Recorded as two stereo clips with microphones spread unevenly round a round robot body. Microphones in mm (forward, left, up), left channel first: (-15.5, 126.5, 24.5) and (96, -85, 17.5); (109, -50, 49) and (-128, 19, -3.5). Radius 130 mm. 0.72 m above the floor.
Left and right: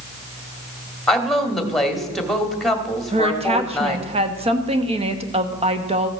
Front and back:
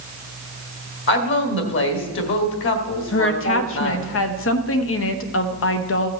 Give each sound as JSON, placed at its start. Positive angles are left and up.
{"t": 1.1, "sound": "a woman speaking", "azimuth_deg": 30, "distance_m": 1.8}
{"t": 3.1, "sound": "a woman speaking", "azimuth_deg": -15, "distance_m": 1.1}